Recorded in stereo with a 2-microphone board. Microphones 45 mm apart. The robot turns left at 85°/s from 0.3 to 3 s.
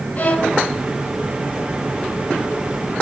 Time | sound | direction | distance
0.2 | a violin | 40° left (ahead or behind) | 3 m